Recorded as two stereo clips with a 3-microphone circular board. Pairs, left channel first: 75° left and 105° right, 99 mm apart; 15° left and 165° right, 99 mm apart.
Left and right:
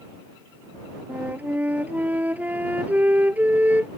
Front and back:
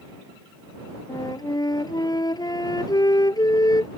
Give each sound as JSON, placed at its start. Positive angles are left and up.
{"t": 1.1, "sound": "a flute", "azimuth_deg": -30}